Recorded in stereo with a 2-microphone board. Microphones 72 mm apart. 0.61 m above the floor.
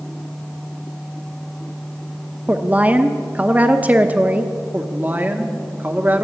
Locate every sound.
2.5 s a woman speaking: 25° right (ahead or behind), 0.6 m
4.7 s a woman speaking: 30° right (ahead or behind), 1.1 m